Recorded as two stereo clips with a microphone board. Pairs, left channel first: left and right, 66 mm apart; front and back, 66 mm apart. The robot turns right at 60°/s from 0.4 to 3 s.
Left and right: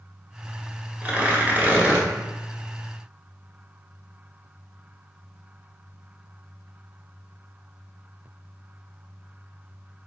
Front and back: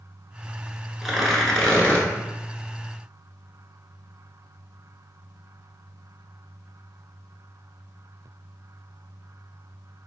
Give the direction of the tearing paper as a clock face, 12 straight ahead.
3 o'clock.